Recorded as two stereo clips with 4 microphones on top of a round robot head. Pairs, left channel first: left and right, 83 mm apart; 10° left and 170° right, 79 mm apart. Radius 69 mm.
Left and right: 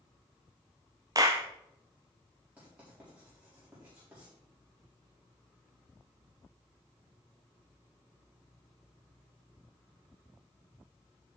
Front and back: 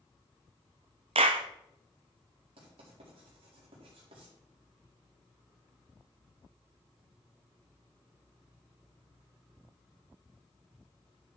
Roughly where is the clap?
Behind right.